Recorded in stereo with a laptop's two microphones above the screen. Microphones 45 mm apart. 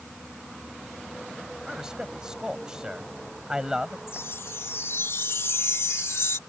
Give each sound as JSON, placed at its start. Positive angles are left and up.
{"t": 1.7, "sound": "a man speaking", "side_deg": -15}
{"t": 4.1, "sound": "a chime", "side_deg": 70}